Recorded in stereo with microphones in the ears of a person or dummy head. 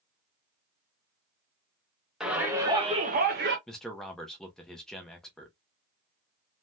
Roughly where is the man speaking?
Centre.